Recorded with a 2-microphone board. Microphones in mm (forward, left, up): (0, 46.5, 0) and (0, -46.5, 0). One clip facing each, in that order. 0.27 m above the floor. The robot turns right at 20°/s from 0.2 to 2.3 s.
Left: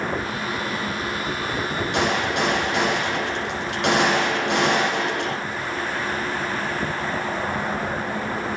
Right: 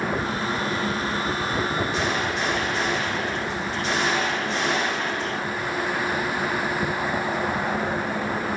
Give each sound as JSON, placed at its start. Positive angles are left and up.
{"t": 1.9, "sound": "a gunshot", "side_deg": 80, "distance_m": 8.5}